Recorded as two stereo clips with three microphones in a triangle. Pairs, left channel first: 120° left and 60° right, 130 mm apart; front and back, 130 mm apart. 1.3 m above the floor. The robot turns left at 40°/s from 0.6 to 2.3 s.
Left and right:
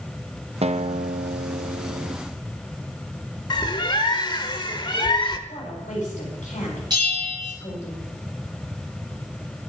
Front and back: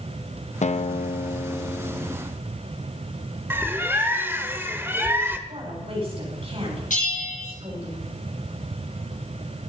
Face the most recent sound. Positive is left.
turn(degrees=-5)